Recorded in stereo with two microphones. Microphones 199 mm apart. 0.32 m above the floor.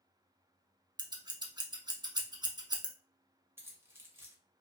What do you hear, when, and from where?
1.0 s scissors: 20° right (ahead or behind), 0.5 m
3.6 s keys jangling: 10° right (ahead or behind), 0.6 m